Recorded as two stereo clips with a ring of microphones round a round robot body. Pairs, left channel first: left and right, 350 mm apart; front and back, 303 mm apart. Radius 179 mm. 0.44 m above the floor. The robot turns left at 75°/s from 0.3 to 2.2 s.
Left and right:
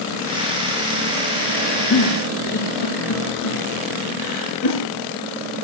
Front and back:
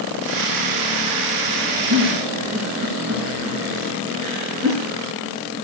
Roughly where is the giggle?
Behind left.